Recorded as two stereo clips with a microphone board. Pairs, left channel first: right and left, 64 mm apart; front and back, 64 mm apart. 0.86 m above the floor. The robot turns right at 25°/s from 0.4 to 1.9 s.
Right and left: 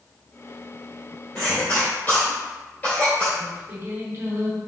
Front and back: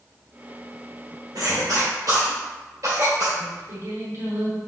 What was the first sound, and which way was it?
A cough, 165° right.